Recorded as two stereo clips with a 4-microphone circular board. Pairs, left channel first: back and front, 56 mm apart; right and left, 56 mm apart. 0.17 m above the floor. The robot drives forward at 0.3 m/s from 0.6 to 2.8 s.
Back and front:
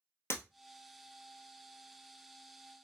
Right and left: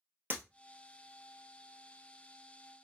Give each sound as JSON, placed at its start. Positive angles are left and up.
{"t": 0.3, "sound": "breaking glass", "azimuth_deg": 145, "distance_m": 1.1}